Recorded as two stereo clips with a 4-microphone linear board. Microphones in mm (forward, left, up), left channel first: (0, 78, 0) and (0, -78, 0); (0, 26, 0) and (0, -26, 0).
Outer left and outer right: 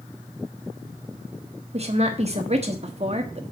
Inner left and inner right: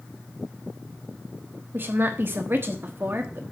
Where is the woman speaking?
45° right (ahead or behind), 1.3 m.